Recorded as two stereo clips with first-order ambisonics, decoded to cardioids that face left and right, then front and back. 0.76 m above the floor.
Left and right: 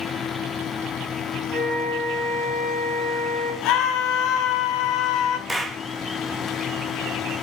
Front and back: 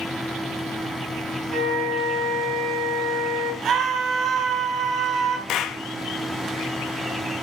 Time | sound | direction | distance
1.5 | a flute | 165° right | 5 m
3.6 | a scream | 120° left | 2 m
5.5 | a clap | 10° right | 0.7 m